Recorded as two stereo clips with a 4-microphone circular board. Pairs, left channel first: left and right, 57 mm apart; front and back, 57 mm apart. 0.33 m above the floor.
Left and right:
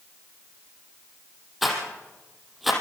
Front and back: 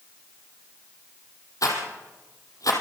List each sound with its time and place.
1.6 s a rattle: straight ahead, 4.5 m